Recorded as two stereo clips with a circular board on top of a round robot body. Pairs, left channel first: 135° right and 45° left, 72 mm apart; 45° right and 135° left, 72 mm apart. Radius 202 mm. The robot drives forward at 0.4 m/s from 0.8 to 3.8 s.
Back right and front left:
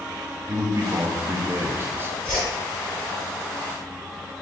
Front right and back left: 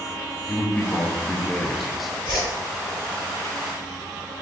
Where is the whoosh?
70° right, 0.7 m; by 2.5 s 80° right, 0.6 m.